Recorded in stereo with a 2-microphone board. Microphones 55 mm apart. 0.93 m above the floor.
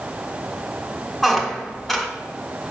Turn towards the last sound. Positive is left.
turn(degrees=0)  # may be behind; listen again after turning